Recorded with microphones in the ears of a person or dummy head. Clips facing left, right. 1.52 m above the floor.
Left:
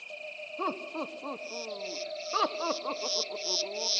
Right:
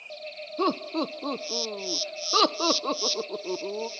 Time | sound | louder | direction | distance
0.6 | laughter | right 8 dB | 55° right (ahead or behind) | 0.5 m